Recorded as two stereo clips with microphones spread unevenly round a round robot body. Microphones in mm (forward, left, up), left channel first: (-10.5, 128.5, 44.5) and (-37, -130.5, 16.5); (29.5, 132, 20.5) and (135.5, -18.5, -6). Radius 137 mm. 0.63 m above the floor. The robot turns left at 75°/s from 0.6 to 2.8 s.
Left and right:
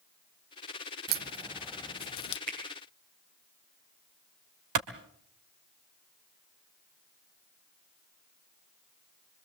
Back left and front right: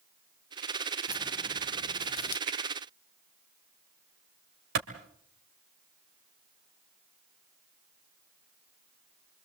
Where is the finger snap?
85° right, 7.5 m; by 2.6 s 90° right, 7.5 m.